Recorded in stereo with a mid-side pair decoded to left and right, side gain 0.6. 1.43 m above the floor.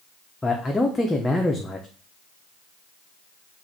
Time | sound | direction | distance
0.4 | a man speaking | 15° left | 0.7 m